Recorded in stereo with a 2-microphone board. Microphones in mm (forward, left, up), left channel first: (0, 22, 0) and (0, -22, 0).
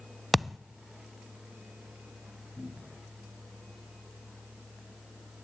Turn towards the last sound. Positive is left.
turn(degrees=40)  # may be behind; listen again after turning